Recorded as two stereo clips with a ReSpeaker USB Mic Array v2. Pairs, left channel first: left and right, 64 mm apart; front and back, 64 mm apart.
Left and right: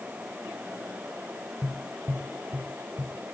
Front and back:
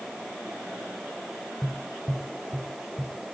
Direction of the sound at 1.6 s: 60° right.